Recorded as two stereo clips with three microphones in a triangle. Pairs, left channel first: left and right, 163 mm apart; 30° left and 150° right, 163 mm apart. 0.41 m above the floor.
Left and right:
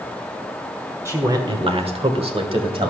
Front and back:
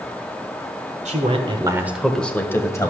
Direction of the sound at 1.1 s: 160° right.